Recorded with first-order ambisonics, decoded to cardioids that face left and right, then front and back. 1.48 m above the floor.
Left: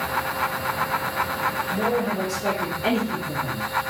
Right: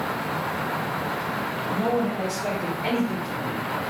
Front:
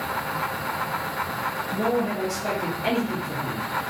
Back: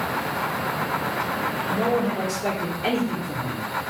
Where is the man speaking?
160° left, 1.8 m; by 3.7 s 130° left, 2.5 m.